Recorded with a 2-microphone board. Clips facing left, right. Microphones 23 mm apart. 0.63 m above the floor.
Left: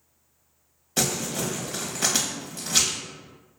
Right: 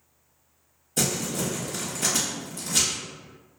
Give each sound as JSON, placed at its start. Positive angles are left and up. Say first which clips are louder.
{"t": 1.0, "sound": "crumpling", "louder": "left 1 dB", "side_deg": 45, "distance_m": 0.9}